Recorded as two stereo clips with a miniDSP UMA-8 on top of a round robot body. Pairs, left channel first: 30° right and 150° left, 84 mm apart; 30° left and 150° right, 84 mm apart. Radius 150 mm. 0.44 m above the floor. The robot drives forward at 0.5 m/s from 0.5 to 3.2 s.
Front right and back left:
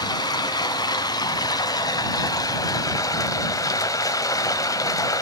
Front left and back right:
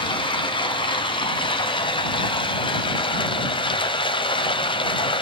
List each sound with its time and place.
0.0 s running water: 10° left, 3.5 m; by 5.2 s 20° left, 2 m